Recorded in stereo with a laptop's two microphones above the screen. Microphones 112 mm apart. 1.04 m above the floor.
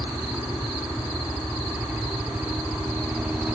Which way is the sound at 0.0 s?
15° right (ahead or behind).